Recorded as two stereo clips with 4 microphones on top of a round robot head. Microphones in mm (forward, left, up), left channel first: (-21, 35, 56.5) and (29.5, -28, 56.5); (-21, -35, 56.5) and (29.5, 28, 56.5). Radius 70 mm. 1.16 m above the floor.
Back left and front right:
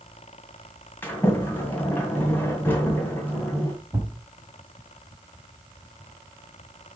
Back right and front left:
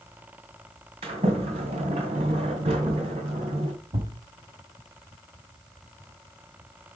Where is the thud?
15° left, 1.6 m.